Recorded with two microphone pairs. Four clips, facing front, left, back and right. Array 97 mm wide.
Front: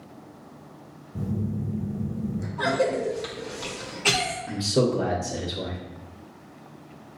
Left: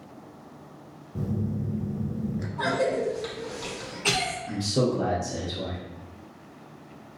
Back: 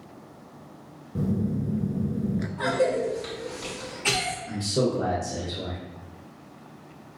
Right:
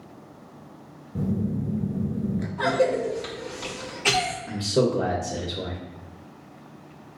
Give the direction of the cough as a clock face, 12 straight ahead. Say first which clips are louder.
Right 3 dB, front 1 dB; 1 o'clock.